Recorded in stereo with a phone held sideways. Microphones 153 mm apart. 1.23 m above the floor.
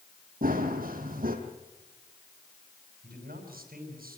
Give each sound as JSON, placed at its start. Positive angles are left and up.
{"t": 0.4, "sound": "running footsteps", "side_deg": -70, "distance_m": 3.0}
{"t": 3.0, "sound": "a man speaking", "side_deg": -75, "distance_m": 6.0}